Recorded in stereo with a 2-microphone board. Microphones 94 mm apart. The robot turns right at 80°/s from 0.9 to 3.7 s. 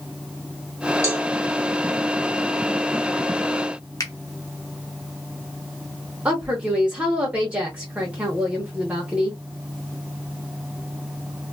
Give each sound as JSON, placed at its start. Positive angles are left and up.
{"t": 1.0, "sound": "a cowbell", "side_deg": 25, "distance_m": 1.0}
{"t": 4.0, "sound": "a finger snap", "side_deg": 40, "distance_m": 1.0}
{"t": 6.2, "sound": "a woman speaking", "side_deg": -15, "distance_m": 0.9}